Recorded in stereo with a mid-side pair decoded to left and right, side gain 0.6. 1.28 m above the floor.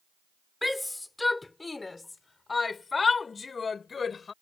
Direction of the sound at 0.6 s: 10° left.